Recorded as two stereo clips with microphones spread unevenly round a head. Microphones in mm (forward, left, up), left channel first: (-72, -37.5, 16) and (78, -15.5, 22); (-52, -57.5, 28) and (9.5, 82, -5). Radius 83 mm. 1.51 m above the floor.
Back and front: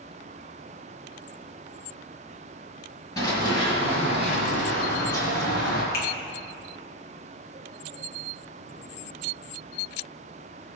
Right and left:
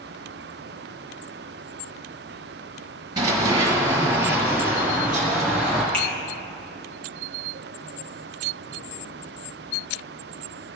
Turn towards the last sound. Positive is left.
turn(degrees=-150)